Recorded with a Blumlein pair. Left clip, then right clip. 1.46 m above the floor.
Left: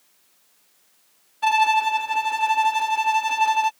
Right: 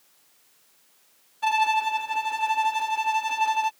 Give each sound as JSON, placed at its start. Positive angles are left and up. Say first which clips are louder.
{"t": 1.4, "sound": "a violin", "louder": "left 4 dB", "azimuth_deg": 15}